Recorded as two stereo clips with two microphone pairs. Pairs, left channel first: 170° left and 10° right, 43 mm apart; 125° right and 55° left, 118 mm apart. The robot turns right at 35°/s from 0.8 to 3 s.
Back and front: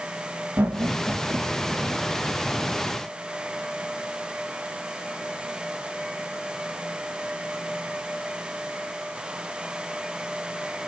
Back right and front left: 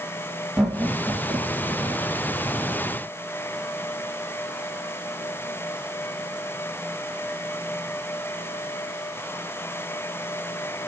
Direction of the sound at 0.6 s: 40° right.